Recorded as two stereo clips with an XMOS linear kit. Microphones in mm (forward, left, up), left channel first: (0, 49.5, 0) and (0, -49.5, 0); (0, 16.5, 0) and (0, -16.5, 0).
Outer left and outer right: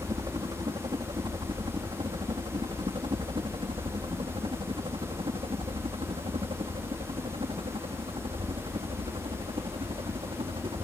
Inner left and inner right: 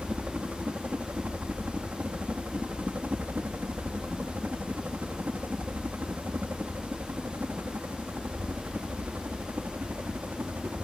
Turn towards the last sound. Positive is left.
turn(degrees=-65)  # may be behind; listen again after turning